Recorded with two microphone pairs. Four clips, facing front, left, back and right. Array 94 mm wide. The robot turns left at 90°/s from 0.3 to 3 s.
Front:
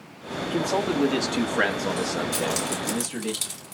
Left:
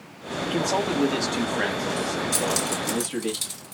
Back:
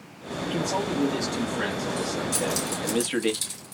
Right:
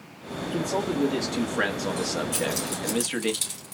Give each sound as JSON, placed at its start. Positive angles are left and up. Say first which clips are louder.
{"t": 0.4, "sound": "a man speaking", "louder": "left 2 dB, front 3 dB", "azimuth_deg": 95, "distance_m": 1.0}
{"t": 2.3, "sound": "keys jangling", "louder": "left 3 dB, front 1 dB", "azimuth_deg": 60, "distance_m": 1.8}